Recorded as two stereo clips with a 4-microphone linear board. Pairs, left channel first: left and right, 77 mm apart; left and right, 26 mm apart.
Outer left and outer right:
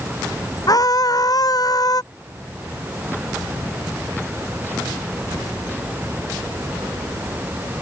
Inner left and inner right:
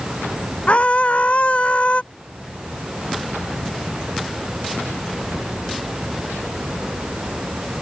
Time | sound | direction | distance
0.7 | a scream | 55° left (ahead or behind) | ?